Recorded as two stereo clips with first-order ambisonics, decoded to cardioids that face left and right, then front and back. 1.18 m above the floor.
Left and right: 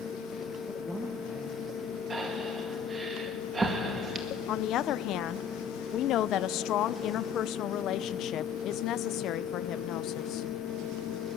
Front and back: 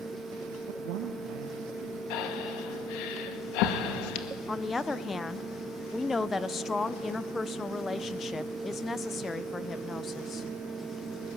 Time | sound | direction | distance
0.7 | a man speaking | 170° left | 0.9 m
2.1 | breathing | 15° right | 1.9 m
4.5 | a woman speaking | 70° left | 0.6 m